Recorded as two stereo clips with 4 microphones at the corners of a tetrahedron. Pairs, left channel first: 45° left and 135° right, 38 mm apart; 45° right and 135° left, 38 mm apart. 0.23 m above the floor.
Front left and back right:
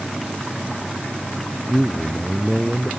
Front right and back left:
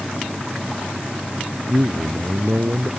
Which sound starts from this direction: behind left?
A man speaking, at 1.7 s.